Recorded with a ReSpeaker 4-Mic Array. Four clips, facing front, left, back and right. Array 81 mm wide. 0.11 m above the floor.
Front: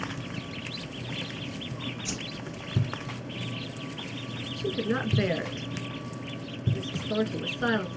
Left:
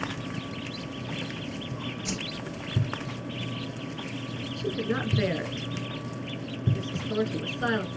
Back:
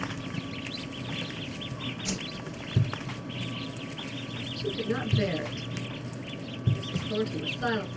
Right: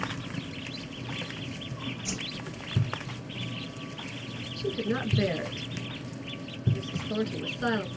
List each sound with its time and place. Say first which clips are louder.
2.0 s a whoosh: left 3 dB, back 2 dB; 135° left, 1.5 m
4.6 s a woman speaking: even, front 2 dB; 35° left, 1.1 m